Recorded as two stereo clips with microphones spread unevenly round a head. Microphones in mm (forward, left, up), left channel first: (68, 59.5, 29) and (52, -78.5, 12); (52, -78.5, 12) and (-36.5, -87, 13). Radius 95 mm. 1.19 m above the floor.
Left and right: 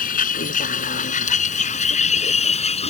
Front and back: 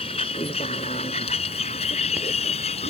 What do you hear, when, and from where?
0.0 s a vehicle: 65° left; by 2.9 s 45° left